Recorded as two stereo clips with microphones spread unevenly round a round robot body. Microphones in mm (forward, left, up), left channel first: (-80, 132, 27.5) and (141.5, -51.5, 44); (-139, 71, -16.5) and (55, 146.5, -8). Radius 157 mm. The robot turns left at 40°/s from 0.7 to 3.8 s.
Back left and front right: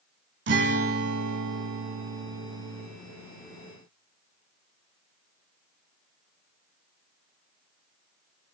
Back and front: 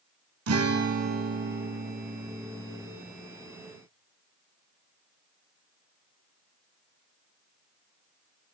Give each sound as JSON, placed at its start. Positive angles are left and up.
{"t": 0.5, "sound": "a guitar", "azimuth_deg": 10, "distance_m": 1.2}